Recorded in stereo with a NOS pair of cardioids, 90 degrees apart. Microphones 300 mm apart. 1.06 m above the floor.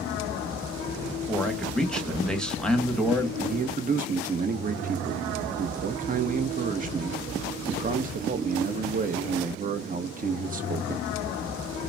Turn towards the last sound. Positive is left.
turn(degrees=-30)